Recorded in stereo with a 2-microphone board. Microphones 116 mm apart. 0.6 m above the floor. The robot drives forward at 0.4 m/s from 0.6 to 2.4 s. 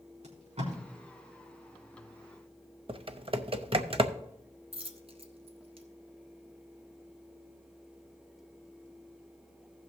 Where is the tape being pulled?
75° right (ahead or behind), 4 m.